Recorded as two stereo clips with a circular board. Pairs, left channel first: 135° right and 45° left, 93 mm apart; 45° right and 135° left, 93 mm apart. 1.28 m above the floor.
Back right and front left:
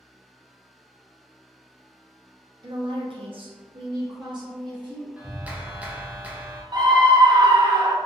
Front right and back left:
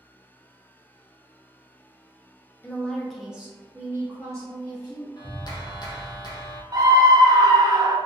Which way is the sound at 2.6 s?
20° left.